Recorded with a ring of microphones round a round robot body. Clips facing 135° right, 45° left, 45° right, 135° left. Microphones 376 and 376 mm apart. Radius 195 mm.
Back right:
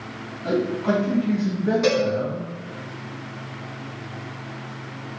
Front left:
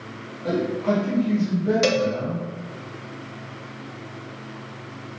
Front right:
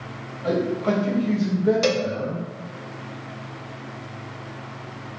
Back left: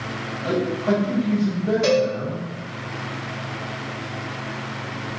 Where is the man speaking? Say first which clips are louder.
Back right 1 dB, back left 1 dB; 60° right, 1.6 m.